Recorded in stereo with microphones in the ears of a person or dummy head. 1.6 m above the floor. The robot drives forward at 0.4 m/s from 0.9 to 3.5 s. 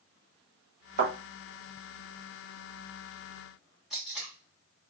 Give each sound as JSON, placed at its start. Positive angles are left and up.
{"t": 1.0, "sound": "a thud", "side_deg": -45, "distance_m": 1.4}
{"t": 3.9, "sound": "tape being pulled", "side_deg": -5, "distance_m": 1.2}